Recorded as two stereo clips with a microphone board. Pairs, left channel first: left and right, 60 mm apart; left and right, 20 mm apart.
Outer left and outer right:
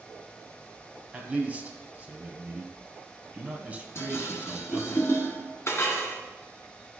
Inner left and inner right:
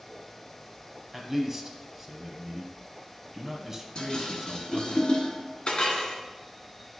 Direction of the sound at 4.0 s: 50° left (ahead or behind).